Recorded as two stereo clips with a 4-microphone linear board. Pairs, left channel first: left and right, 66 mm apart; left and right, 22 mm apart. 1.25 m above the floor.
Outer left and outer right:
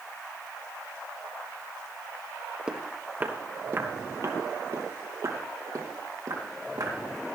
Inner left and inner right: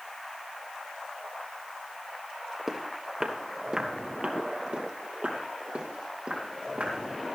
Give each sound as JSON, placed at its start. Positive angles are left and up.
{"t": 2.7, "sound": "footsteps", "side_deg": -15, "distance_m": 1.5}